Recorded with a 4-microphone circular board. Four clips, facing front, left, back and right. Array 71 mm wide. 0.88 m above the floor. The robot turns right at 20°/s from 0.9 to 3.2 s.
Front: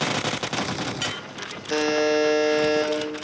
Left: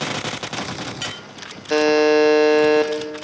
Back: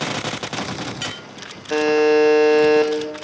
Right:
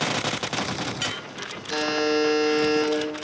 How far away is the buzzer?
About 1.2 m.